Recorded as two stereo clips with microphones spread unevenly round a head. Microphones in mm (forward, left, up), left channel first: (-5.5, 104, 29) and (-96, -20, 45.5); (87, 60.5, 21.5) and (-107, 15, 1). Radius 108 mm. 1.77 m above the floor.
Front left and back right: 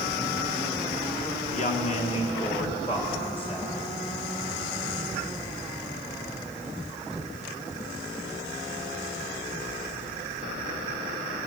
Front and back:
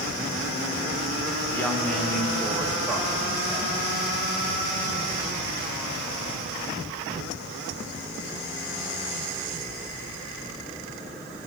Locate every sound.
1.5 s a woman speaking: 90° left, 1.8 m; by 3.9 s 110° left, 5 m